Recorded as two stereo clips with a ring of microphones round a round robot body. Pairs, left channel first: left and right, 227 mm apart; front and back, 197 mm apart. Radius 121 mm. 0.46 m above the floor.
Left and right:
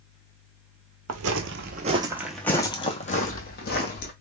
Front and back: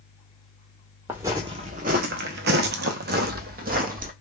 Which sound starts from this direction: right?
Footsteps, at 1.1 s.